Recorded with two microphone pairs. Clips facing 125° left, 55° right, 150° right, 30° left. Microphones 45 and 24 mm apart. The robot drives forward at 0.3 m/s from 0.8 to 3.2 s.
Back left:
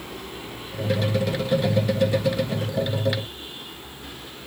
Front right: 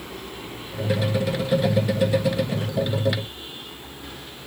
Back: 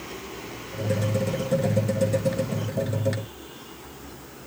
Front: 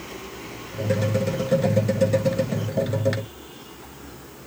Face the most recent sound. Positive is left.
No sound to turn to.